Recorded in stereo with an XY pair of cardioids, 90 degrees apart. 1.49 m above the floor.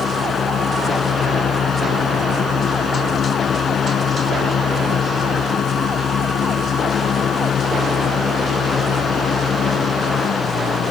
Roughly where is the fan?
Ahead left.